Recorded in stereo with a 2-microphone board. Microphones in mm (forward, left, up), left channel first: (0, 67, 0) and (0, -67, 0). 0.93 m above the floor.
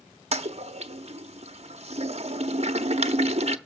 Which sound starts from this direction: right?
A toilet flushing, at 0.3 s.